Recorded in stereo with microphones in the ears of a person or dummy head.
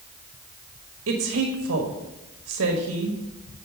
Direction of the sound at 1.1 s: 80° right.